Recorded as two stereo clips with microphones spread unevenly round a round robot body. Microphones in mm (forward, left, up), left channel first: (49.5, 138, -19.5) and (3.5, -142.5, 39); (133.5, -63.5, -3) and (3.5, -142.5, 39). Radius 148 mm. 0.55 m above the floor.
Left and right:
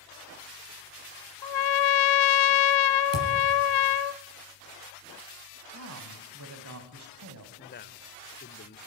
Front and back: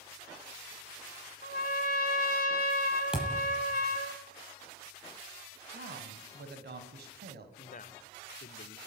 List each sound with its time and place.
1.4 s a trumpet: 95° left, 1.0 m
3.1 s a thud: 65° right, 8 m
5.7 s a man speaking: 145° right, 4 m
7.6 s a man speaking: 35° left, 1.6 m